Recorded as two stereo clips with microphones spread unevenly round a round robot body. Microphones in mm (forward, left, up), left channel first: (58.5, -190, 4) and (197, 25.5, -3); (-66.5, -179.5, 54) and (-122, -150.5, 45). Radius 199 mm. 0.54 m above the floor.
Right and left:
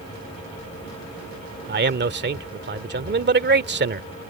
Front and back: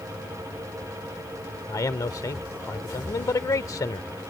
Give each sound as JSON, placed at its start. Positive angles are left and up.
{"t": 1.7, "sound": "a man speaking", "azimuth_deg": 15}